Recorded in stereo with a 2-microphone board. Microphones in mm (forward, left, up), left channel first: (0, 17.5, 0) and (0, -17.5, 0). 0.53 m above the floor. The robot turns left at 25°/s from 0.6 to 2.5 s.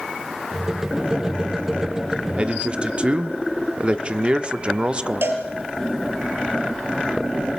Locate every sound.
2.3 s a man speaking: 30° right (ahead or behind), 1.1 m
5.2 s a cowbell: 85° right, 3.5 m